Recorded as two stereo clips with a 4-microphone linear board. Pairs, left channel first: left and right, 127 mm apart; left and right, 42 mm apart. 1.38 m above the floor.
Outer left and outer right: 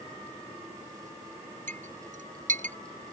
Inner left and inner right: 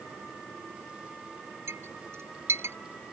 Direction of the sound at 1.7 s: 80° right.